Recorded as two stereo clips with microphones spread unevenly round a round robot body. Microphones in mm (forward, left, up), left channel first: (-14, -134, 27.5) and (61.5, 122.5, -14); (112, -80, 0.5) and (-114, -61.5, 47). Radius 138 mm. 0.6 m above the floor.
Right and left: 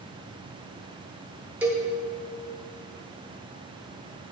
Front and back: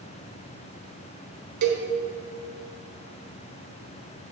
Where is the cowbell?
155° left, 1.4 m.